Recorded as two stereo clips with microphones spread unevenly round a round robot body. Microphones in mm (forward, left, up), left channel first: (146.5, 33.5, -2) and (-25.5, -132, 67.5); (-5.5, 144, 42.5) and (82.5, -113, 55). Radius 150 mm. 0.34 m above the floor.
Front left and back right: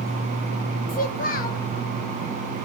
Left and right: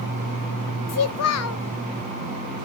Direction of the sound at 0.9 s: 90° left.